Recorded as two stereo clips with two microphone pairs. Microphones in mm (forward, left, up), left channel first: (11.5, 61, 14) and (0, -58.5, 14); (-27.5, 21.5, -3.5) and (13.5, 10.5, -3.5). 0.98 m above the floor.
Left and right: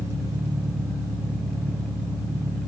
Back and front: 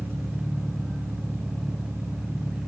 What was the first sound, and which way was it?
An engine running, 30° right.